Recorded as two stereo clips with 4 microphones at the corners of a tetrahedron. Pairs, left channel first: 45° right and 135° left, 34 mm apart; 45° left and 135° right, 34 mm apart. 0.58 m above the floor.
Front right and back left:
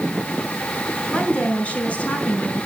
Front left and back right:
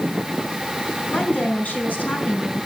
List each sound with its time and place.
1.1 s a woman speaking: 5° left, 5.5 m